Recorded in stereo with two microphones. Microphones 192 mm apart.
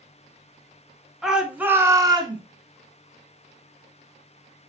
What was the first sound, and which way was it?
A shout, centre (ahead or behind).